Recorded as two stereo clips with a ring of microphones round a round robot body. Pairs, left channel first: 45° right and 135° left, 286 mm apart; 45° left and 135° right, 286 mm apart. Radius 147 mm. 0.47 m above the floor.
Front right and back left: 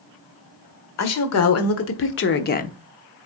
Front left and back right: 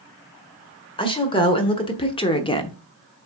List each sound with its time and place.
1.0 s a woman speaking: 25° right, 1.6 m; by 2.8 s 10° right, 0.8 m